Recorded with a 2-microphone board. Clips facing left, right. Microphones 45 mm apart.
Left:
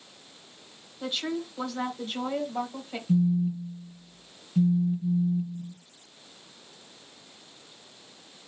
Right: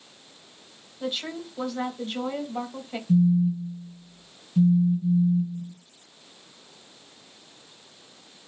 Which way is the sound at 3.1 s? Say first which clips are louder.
Right 4 dB; 50° left (ahead or behind).